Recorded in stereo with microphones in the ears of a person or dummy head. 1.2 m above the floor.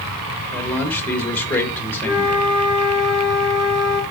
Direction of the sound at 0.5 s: 10° left (ahead or behind).